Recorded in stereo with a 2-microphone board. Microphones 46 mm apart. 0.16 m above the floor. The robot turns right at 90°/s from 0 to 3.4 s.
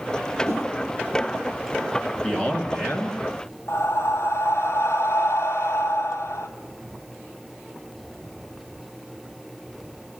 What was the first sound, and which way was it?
A whoosh, 70° right (ahead or behind).